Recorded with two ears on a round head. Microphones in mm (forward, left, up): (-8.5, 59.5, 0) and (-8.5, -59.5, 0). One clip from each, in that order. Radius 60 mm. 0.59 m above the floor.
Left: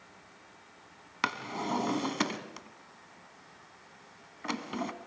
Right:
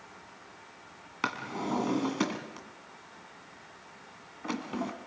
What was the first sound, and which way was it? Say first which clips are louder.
A drawer: left 1 dB; 40° left (ahead or behind).